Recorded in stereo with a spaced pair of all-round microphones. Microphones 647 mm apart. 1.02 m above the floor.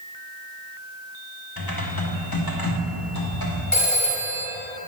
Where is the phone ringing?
45° left (ahead or behind), 1.5 m.